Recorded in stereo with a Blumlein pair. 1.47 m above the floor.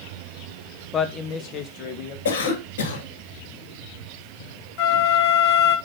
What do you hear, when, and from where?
0.9 s a man speaking: 20° left, 0.8 m; by 2.1 s 40° left, 2 m
2.2 s a cough: 55° left, 2.5 m
4.8 s a flute: 45° left, 1.0 m